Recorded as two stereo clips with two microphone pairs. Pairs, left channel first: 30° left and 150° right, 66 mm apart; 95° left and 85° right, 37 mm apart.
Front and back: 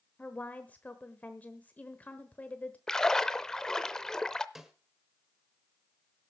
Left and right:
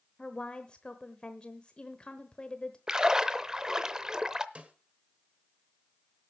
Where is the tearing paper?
No tearing paper in this recording.